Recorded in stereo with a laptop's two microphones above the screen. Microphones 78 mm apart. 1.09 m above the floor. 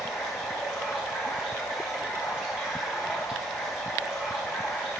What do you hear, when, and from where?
0.0 s running water: 15° right (ahead or behind), 3 m